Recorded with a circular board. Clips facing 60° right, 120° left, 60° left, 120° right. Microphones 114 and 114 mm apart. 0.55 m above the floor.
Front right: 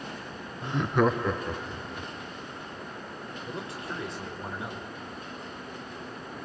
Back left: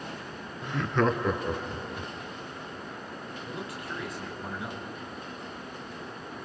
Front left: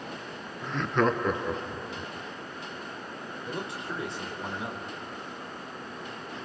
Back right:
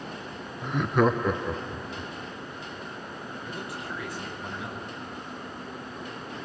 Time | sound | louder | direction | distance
0.6 | laughter | front right 2 dB, back right 3 dB | 65° right | 0.7 m
3.5 | a man speaking | front right 1 dB, front left 3 dB | straight ahead | 2.5 m